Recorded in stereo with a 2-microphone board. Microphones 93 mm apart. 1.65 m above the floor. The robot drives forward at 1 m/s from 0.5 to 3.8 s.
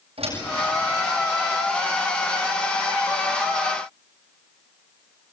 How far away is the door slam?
About 8 m.